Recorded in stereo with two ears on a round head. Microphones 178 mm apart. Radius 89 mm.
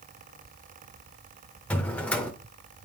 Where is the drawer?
5° left (ahead or behind), 0.9 m.